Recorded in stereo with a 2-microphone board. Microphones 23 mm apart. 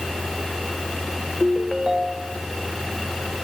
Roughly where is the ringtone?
Right.